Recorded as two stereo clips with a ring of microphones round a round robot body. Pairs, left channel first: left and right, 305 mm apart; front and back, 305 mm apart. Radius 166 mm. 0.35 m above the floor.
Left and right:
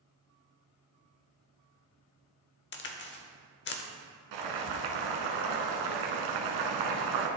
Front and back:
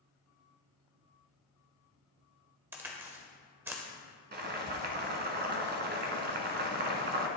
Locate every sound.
2.7 s a crack: 100° left, 0.7 m
4.3 s boiling: 120° right, 1.1 m